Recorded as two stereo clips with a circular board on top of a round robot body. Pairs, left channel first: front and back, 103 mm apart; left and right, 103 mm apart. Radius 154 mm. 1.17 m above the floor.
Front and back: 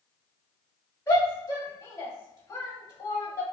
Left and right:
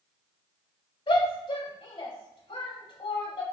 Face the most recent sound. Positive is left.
turn(degrees=60)